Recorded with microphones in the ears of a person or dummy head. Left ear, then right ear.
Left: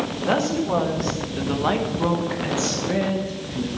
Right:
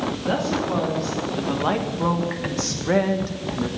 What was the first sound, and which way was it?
A woman speaking, 30° left (ahead or behind).